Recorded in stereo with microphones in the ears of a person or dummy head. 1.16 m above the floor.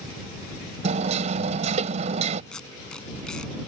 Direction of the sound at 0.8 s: 35° right (ahead or behind).